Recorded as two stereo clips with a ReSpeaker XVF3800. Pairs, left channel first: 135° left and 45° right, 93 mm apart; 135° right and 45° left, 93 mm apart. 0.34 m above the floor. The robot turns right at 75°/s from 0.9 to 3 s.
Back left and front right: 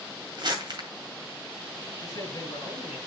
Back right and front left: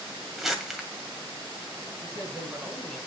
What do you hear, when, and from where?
0.4 s crumpling: 40° right, 1.9 m
2.0 s a man speaking: 75° left, 5 m; by 3.0 s 145° left, 5 m